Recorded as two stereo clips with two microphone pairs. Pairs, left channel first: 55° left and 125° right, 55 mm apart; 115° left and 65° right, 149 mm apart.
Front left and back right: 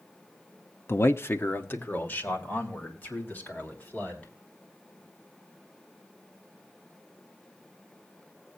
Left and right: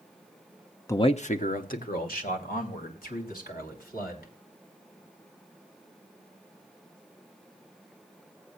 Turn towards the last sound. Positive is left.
turn(degrees=115)